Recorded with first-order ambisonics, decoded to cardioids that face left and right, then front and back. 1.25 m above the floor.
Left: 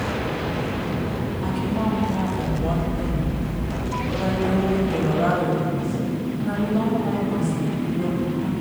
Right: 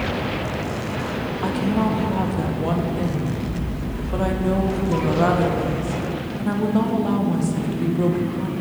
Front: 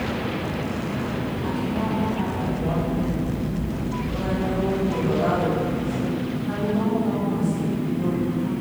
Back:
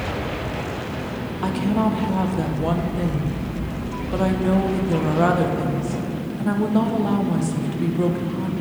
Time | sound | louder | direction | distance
1.4 | a woman speaking | right 4 dB, back 7 dB | 150° right | 0.7 m